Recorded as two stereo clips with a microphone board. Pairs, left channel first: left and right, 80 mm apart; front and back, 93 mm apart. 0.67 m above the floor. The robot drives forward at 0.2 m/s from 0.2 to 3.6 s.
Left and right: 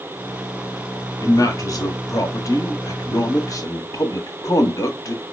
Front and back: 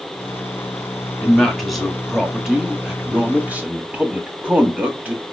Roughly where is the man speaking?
Left.